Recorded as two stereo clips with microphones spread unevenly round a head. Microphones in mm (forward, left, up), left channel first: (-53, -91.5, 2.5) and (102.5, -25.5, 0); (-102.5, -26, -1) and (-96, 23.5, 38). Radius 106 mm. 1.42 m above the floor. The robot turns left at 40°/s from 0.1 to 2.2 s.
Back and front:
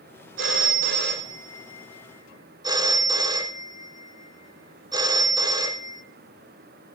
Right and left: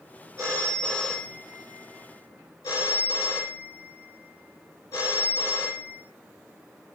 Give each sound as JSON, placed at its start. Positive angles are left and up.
{"t": 0.4, "sound": "a phone ringing", "azimuth_deg": 30, "distance_m": 3.0}